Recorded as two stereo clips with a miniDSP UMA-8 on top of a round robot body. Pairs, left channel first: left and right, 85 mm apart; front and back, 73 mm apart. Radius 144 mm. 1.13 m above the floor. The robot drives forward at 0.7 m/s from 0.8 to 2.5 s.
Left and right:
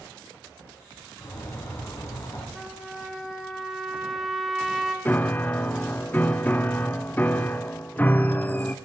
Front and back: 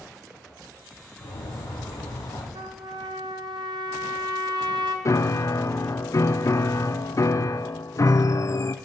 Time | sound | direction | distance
1.2 | a bird | 30° left | 4 m
2.5 | a trumpet | straight behind | 1.5 m
5.0 | a piano | 25° left | 0.7 m